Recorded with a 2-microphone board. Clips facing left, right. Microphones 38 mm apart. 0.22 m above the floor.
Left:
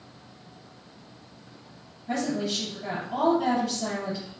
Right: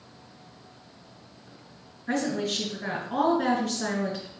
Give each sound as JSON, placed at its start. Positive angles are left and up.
{"t": 2.1, "sound": "a woman speaking", "side_deg": -65, "distance_m": 3.5}